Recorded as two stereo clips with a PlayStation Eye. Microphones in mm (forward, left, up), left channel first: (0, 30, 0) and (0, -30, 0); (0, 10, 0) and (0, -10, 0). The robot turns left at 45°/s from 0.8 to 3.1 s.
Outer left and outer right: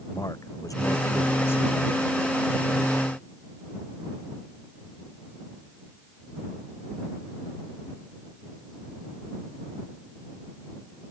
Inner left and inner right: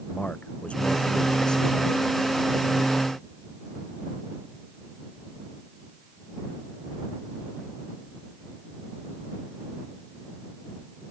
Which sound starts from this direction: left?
A man speaking, at 0.1 s.